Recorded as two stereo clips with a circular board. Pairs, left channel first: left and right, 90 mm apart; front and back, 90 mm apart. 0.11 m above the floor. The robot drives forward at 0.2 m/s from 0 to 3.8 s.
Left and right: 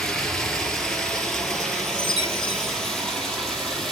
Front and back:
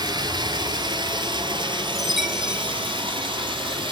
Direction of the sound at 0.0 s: 170° left.